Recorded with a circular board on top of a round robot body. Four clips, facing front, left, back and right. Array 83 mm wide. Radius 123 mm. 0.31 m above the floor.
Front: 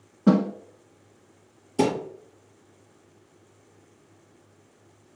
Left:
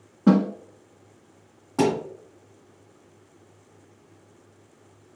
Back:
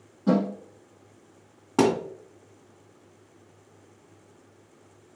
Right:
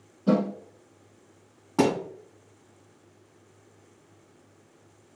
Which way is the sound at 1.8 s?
170° right.